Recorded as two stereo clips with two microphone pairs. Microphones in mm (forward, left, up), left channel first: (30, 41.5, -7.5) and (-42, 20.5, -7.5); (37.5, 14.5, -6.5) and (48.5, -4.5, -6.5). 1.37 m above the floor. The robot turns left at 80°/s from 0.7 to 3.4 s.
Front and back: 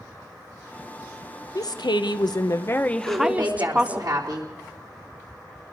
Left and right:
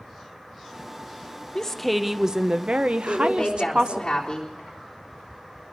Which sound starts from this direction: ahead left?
A woman speaking, at 1.6 s.